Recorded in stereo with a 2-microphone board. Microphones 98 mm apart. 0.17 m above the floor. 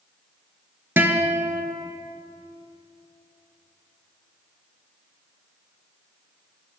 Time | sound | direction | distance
1.0 | a guitar | 20° right (ahead or behind) | 0.5 m